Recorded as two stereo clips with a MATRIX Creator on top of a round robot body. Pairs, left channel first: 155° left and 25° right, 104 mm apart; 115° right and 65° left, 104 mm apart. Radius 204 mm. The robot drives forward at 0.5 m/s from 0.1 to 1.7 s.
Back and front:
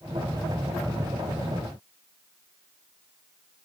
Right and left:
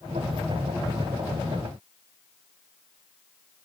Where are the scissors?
No scissors in this recording.